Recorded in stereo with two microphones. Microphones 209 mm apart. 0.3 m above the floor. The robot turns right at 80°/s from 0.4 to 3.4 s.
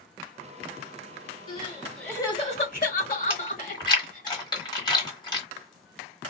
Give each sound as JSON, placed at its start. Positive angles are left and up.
{"t": 1.5, "sound": "crying", "side_deg": -25, "distance_m": 1.6}
{"t": 3.3, "sound": "chewing", "side_deg": 25, "distance_m": 1.3}